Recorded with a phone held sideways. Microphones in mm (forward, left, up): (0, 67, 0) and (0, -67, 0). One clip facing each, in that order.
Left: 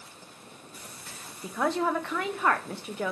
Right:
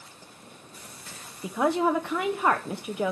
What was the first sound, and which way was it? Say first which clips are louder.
A woman speaking: right 3 dB; 15° right (ahead or behind).